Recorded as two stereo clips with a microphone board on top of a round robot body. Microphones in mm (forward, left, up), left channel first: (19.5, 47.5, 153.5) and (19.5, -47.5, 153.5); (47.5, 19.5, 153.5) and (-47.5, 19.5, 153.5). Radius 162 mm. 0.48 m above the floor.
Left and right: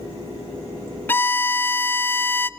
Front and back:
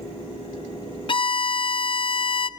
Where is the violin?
20° left, 0.5 m.